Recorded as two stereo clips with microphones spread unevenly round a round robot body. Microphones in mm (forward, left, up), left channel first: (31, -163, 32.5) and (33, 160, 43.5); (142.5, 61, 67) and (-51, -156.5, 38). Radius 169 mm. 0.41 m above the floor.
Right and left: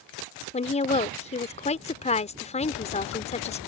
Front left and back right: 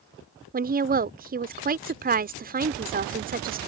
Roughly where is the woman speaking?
Behind right.